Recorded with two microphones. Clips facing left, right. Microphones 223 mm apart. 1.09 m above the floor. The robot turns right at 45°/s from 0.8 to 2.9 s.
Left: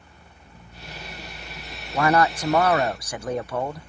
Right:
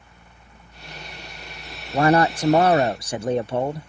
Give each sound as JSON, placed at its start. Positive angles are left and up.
{"t": 1.9, "sound": "a man speaking", "azimuth_deg": -105}